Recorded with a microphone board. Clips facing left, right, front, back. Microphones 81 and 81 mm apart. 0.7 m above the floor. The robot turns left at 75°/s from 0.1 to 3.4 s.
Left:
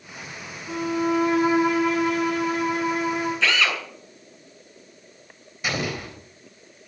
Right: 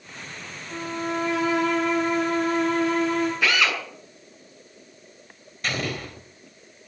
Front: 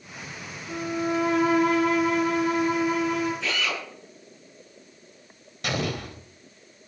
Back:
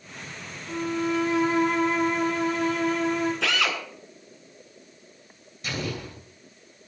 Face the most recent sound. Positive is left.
turn(degrees=10)